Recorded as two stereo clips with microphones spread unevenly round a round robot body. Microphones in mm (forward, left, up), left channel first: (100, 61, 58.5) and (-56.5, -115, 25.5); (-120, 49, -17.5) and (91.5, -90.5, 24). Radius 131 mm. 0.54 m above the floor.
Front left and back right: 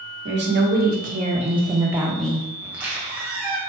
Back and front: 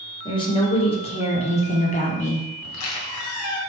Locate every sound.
0.2 s a woman speaking: 150° right, 1.8 m; by 2.5 s 135° left, 1.1 m
2.6 s a squeak: 145° left, 1.4 m